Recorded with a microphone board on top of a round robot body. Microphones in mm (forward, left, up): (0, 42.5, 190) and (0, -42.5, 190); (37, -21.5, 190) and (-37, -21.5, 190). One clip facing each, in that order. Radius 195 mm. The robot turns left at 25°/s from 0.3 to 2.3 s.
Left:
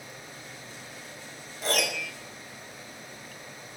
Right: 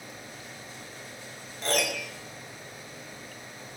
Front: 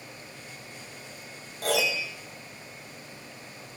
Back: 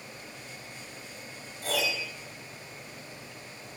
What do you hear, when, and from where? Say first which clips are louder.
1.6 s a piano: even, front 4 dB; 5° left, 3 m; by 2.1 s 5° right, 3 m